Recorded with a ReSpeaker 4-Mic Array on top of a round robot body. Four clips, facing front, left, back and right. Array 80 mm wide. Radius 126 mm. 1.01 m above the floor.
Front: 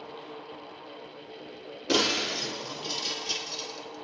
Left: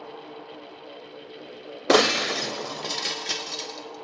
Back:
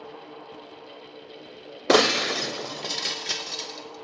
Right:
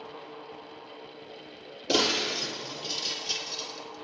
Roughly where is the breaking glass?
Behind left.